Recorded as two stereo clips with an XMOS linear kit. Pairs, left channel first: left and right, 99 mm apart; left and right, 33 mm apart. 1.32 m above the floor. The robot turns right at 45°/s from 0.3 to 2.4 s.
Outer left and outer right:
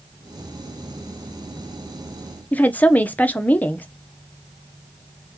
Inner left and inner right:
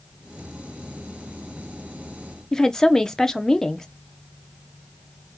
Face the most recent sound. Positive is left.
turn(degrees=15)  # may be behind; listen again after turning